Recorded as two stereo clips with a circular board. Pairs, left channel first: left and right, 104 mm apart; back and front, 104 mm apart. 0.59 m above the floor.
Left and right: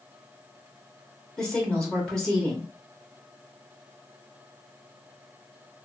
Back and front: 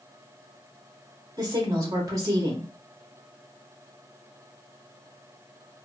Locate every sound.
1.4 s a woman speaking: 15° left, 1.1 m